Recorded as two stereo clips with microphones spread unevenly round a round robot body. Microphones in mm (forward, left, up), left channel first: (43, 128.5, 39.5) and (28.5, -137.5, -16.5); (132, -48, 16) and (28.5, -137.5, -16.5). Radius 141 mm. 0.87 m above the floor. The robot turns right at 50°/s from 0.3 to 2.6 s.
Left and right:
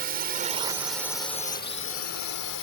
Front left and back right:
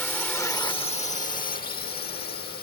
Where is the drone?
40° right; by 2.6 s 75° left.